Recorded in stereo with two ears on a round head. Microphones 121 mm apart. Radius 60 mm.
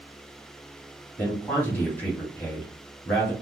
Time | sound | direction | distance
1.2 | a man speaking | 15° left (ahead or behind) | 2.5 m